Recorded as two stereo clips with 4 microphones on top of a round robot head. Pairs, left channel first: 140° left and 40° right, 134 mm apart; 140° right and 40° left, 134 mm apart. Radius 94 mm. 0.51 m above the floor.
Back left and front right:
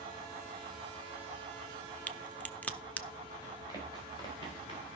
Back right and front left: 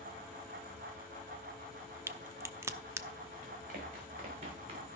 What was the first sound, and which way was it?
A crack, 80° left.